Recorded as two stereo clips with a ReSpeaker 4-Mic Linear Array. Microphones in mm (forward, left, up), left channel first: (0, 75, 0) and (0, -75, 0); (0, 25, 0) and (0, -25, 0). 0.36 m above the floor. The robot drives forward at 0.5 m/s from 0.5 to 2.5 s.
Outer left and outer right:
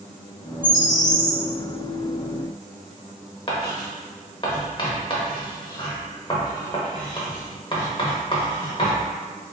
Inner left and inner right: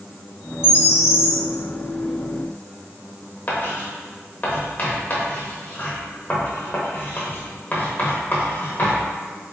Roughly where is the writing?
Left.